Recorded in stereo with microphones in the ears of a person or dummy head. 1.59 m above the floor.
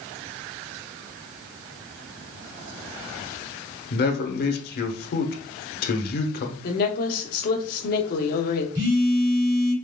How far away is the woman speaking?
About 1.0 m.